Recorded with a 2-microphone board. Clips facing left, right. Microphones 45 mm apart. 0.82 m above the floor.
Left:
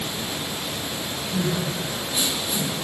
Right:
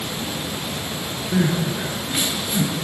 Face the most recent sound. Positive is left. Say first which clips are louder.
# right 5 dB
turn(degrees=-45)  # may be behind; listen again after turning